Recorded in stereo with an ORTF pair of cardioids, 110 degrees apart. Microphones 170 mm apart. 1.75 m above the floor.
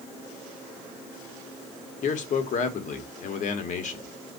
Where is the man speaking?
50° left, 1.0 m.